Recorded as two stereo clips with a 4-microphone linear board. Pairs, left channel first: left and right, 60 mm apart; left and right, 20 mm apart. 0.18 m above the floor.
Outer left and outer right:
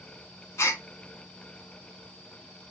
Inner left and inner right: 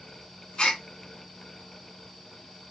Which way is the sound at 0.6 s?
55° left (ahead or behind).